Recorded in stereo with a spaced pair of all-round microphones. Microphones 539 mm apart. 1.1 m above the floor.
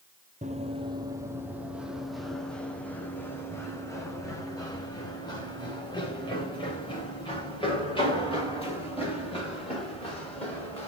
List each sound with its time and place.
0.4 s running footsteps: 15° right (ahead or behind), 1.3 m; by 10.9 s 10° left (ahead or behind), 8 m